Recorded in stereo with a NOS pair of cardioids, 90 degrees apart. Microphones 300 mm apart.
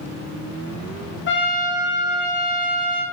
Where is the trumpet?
40° left, 0.6 m.